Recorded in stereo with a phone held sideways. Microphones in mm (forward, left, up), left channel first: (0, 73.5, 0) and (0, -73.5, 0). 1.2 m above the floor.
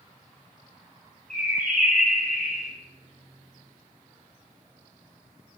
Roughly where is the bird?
Right.